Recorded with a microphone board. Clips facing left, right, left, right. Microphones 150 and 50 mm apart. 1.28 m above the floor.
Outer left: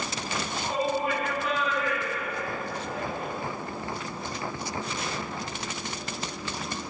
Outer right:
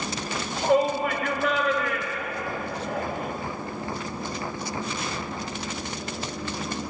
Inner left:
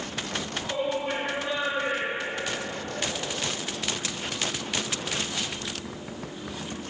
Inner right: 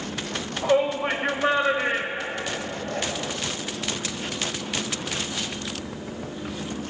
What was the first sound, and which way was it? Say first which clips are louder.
A shout: outer right 7 dB, inner right 9 dB; 75° right (ahead or behind).